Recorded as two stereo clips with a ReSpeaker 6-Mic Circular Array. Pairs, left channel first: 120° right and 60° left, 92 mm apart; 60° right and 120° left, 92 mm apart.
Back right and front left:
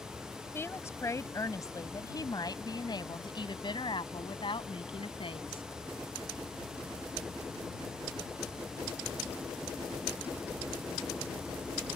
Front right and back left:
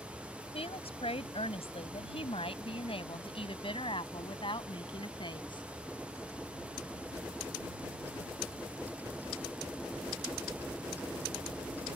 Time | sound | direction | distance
0.5 | a woman speaking | 55° right | ?